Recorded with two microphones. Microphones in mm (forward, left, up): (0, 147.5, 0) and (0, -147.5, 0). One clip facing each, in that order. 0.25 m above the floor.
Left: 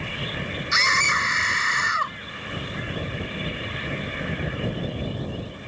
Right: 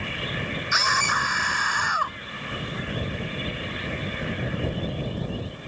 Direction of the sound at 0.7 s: 25° left (ahead or behind).